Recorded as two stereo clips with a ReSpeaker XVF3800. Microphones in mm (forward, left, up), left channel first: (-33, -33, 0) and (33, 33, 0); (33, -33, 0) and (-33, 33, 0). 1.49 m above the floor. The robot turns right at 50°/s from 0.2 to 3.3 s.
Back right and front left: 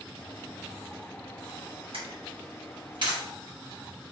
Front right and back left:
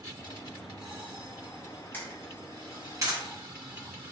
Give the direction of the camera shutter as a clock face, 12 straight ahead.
11 o'clock.